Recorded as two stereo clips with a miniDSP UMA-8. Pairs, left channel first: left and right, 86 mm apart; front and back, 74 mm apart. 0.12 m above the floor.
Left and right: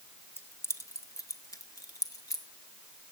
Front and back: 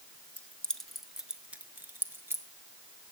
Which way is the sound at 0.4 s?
50° left.